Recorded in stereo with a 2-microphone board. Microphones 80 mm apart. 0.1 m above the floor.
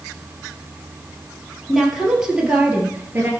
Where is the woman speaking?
Centre (ahead or behind), 3 m; by 3.3 s 30° right (ahead or behind), 2 m.